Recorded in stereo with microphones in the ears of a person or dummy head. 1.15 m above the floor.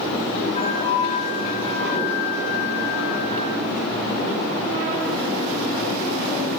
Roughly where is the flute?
Left.